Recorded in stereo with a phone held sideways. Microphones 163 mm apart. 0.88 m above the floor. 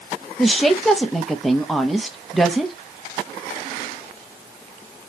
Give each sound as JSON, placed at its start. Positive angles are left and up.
{"t": 0.4, "sound": "a woman speaking", "side_deg": 0, "distance_m": 0.7}